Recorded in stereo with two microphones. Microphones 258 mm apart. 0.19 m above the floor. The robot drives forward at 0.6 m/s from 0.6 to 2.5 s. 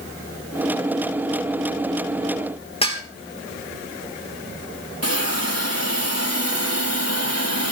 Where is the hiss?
70° left (ahead or behind), 4.5 m.